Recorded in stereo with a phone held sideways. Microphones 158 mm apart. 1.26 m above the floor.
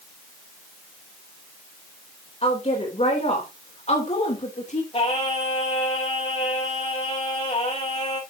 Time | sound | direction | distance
2.4 | a woman speaking | 45° left (ahead or behind) | 4 m
4.9 | singing | 40° left (ahead or behind) | 5 m